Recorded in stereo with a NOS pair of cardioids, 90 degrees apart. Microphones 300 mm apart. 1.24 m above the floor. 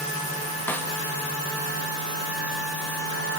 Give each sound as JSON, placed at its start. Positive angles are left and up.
{"t": 0.7, "sound": "a snare drum", "azimuth_deg": 5, "distance_m": 1.9}